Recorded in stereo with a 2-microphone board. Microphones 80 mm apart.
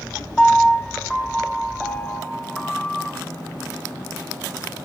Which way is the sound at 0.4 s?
5° left (ahead or behind).